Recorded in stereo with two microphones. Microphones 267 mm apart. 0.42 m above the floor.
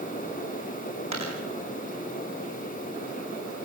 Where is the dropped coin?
85° right, 5 m.